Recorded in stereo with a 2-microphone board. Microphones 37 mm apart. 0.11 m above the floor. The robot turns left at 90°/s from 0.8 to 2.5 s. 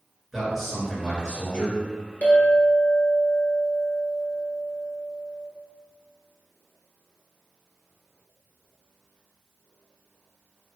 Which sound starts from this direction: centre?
A man speaking, at 0.3 s.